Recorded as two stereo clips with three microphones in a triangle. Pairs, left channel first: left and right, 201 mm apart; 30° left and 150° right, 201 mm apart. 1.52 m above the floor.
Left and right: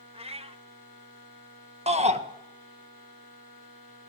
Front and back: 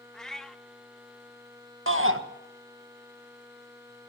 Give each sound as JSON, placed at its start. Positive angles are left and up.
{"t": 0.1, "sound": "a cat meowing", "azimuth_deg": -55, "distance_m": 0.9}
{"t": 1.9, "sound": "a shout", "azimuth_deg": -150, "distance_m": 1.6}